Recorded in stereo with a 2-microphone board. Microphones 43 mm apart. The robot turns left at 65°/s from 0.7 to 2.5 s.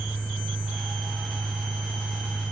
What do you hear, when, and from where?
0.0 s an engine running: 140° right, 6.5 m; by 2.5 s 105° left, 6.5 m